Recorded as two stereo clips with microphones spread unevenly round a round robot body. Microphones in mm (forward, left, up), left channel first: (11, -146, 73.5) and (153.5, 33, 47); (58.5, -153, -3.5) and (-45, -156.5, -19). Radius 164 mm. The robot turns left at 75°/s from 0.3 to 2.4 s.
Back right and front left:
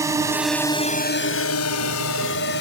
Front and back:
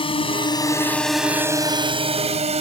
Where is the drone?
25° right; by 2.6 s 175° left.